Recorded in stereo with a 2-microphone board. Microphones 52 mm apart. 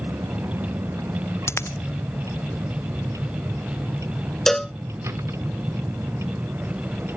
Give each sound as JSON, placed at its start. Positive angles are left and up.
{"t": 0.0, "sound": "a vehicle", "side_deg": -80}
{"t": 1.5, "sound": "a dropped coin", "side_deg": 60}
{"t": 4.5, "sound": "a cowbell", "side_deg": 10}